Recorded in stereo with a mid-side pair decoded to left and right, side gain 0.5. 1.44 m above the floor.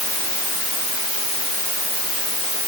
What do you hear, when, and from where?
Only background noise.